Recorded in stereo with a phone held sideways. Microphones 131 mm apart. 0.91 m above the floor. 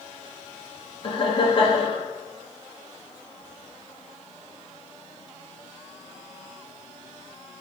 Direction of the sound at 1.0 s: 40° left (ahead or behind).